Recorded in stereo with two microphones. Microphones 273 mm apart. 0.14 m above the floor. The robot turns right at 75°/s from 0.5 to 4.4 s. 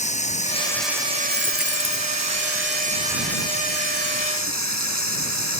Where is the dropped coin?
15° left; by 2.1 s 75° left.